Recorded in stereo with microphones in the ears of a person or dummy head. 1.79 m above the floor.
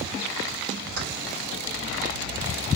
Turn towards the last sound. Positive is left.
turn(degrees=-75)  # may be behind; listen again after turning